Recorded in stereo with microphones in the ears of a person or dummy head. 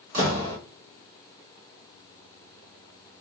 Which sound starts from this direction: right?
A door slam, at 0.1 s.